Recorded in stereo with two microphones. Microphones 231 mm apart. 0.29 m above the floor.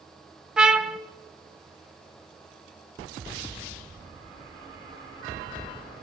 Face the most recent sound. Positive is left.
turn(degrees=-5)  # may be behind; listen again after turning